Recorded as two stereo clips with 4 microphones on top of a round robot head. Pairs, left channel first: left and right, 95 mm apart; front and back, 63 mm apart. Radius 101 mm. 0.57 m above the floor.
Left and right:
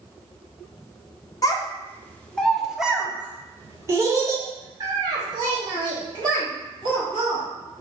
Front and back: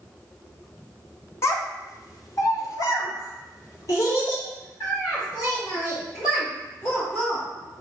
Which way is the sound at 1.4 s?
40° left.